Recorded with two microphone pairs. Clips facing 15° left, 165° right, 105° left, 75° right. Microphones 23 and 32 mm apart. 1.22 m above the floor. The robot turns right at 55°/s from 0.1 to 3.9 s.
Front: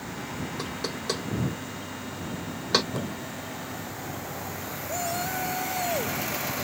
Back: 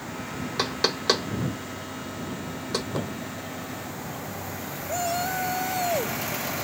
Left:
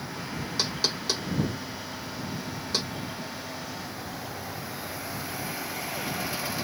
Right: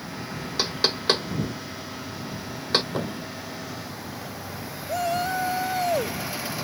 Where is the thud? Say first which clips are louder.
Back 2 dB, right 5 dB; 85° right; by 3.3 s 70° right.